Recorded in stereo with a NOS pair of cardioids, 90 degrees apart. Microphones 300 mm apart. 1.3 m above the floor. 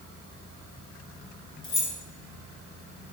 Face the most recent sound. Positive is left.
turn(degrees=40)